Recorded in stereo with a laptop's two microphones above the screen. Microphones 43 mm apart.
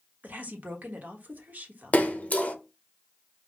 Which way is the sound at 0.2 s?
45° right (ahead or behind).